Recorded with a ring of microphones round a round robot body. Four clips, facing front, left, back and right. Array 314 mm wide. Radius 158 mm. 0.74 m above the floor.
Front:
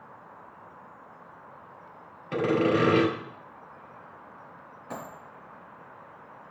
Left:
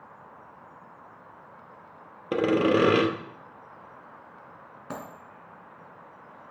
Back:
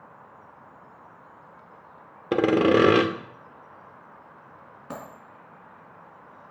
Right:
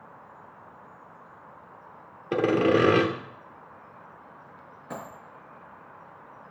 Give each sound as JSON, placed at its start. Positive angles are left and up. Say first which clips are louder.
{"t": 2.3, "sound": "sawing", "louder": "right 1 dB, back 5 dB", "azimuth_deg": 175, "distance_m": 1.1}
{"t": 4.9, "sound": "a dropped coin", "louder": "even, even", "azimuth_deg": 125, "distance_m": 4.0}